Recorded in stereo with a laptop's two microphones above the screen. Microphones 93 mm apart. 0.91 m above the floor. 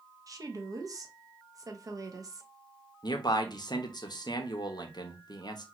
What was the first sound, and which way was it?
A woman speaking, 40° right (ahead or behind).